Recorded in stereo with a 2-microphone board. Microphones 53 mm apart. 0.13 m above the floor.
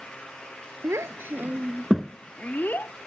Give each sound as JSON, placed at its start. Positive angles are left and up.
{"t": 0.8, "sound": "a child speaking", "side_deg": -65}